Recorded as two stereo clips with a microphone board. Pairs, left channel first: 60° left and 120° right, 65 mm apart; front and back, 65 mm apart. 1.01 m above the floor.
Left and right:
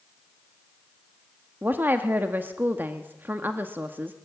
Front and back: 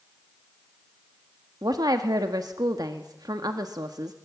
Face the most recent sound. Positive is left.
turn(degrees=180)